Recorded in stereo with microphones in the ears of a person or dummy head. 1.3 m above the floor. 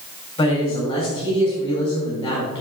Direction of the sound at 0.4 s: 15° left (ahead or behind).